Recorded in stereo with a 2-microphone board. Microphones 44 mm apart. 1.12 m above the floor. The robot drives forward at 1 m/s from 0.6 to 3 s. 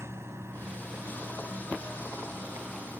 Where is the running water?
70° right (ahead or behind); by 3.0 s 55° right (ahead or behind).